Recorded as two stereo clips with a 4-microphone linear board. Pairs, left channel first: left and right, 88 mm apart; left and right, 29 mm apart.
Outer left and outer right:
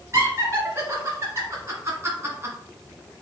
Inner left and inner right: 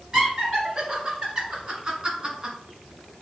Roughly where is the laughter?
Right.